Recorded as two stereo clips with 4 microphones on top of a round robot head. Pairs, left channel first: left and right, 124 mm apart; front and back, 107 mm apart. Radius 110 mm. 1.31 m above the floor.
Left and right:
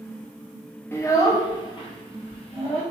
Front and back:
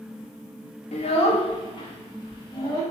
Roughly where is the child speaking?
Ahead.